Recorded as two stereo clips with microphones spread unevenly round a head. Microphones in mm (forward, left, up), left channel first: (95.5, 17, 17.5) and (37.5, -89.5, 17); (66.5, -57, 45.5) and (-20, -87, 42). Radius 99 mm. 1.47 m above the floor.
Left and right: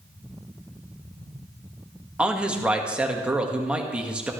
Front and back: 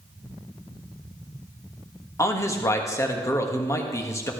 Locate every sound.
2.2 s a man speaking: 35° right, 1.7 m